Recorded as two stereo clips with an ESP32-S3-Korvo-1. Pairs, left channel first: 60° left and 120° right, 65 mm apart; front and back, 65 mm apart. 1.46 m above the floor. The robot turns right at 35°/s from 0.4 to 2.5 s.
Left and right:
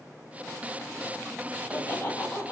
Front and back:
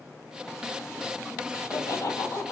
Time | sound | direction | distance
1.5 | laughter | 15° right | 3 m